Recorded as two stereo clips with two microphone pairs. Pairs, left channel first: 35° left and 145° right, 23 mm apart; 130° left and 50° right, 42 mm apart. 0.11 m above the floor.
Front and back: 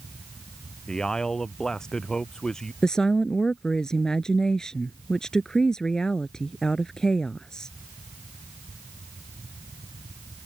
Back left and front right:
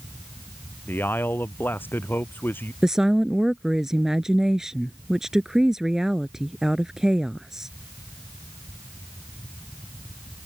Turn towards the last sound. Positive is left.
turn(degrees=15)